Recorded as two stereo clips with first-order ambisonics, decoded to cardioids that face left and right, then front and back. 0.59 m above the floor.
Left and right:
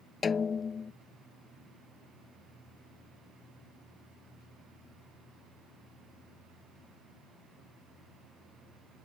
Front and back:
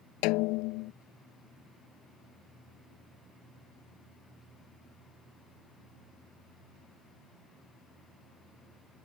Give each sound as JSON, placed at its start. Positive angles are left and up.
{"t": 0.2, "sound": "a snare drum", "azimuth_deg": 20}